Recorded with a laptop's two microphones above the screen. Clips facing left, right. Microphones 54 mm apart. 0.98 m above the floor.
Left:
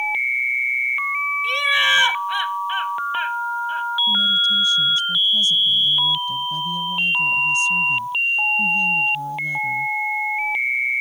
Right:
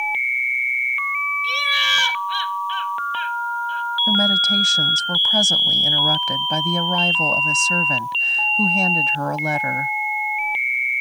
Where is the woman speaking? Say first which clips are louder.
Right 3 dB; 85° right.